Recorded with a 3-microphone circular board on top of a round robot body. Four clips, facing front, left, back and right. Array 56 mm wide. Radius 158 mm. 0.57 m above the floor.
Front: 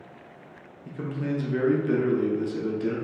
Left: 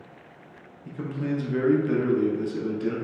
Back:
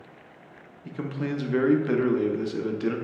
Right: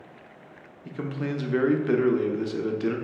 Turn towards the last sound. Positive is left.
turn(degrees=-135)